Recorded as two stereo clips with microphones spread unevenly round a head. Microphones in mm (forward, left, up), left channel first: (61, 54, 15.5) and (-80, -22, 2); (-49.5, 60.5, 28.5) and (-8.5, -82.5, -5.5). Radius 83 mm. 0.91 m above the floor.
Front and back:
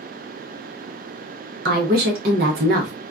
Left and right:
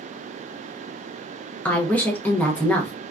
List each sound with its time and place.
1.6 s a woman speaking: 170° right, 0.7 m